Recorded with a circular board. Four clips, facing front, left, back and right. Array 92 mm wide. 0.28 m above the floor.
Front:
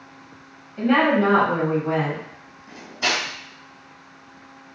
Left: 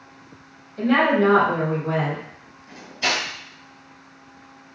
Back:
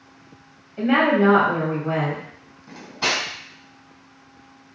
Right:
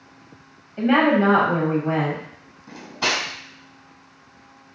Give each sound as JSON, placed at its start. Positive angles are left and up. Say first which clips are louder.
{"t": 0.8, "sound": "a woman speaking", "louder": "right 1 dB, even", "azimuth_deg": -95, "distance_m": 1.2}
{"t": 2.7, "sound": "cutlery clinking", "louder": "right 1 dB, even", "azimuth_deg": -115, "distance_m": 1.5}